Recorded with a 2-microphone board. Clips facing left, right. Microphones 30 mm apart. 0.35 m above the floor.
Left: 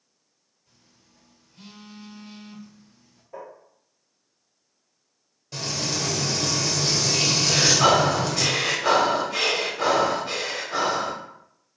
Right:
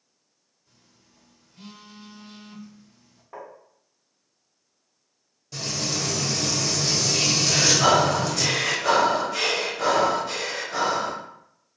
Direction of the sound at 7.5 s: 20° left (ahead or behind).